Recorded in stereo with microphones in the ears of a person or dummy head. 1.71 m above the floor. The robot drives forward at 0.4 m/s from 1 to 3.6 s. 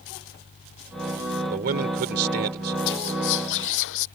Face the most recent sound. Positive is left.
turn(degrees=65)  # may be behind; listen again after turning